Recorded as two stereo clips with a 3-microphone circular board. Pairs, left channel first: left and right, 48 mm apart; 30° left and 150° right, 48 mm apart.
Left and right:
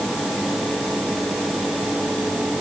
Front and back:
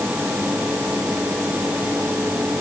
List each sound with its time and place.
Only background noise.